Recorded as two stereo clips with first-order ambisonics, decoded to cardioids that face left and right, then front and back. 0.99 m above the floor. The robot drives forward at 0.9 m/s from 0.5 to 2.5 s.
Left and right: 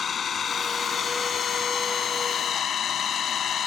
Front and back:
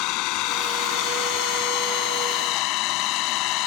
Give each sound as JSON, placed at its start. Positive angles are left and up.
{"t": 0.0, "sound": "an engine running", "azimuth_deg": 25}